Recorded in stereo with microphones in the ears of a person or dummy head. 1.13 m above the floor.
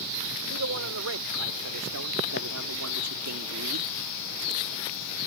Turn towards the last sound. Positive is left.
turn(degrees=-70)  # may be behind; listen again after turning